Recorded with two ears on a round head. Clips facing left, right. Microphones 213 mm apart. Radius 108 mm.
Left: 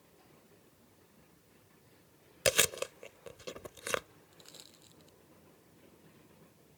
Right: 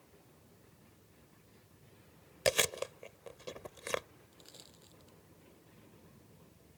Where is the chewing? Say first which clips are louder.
Left 1 dB; 10° left (ahead or behind).